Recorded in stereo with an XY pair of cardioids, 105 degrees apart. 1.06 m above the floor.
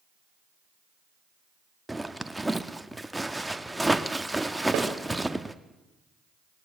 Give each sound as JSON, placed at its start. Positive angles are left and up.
{"t": 1.9, "sound": "a zipper", "azimuth_deg": -5, "distance_m": 1.1}
{"t": 4.7, "sound": "a snare drum", "azimuth_deg": -70, "distance_m": 2.5}